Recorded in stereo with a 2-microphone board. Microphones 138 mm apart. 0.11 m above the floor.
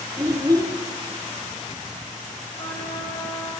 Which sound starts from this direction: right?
A child speaking, at 0.2 s.